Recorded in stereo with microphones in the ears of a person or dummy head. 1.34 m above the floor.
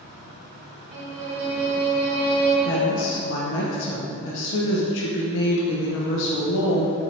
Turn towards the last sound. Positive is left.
turn(degrees=75)  # may be behind; listen again after turning